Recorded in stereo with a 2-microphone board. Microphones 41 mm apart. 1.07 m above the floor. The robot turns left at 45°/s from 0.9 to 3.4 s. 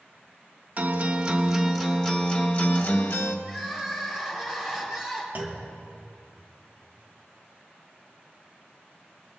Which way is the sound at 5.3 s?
40° right (ahead or behind).